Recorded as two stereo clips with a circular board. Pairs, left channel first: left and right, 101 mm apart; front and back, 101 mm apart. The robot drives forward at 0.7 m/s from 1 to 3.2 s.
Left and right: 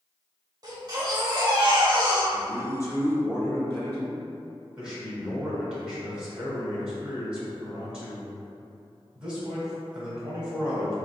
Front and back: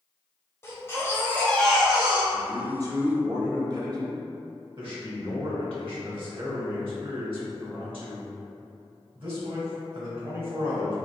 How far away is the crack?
I don't hear a crack.